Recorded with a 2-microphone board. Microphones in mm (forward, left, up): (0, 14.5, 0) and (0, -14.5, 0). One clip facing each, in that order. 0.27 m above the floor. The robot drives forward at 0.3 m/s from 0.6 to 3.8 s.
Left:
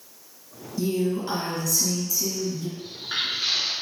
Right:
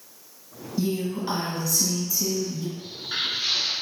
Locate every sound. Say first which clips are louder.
0.8 s a woman speaking: left 2 dB; 25° right (ahead or behind), 1.4 m; by 2.7 s 20° right (ahead or behind), 1.9 m
2.8 s footsteps: even; 15° left (ahead or behind), 1.0 m